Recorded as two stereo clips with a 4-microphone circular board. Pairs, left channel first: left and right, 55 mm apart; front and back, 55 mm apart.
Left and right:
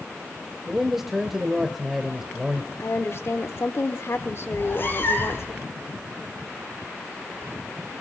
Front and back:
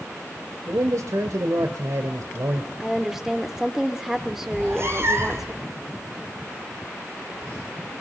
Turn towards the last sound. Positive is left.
turn(degrees=135)